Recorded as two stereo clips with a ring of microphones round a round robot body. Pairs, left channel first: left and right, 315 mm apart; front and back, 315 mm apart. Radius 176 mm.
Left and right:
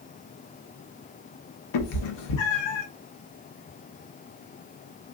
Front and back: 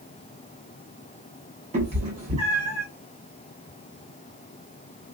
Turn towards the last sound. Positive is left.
turn(degrees=105)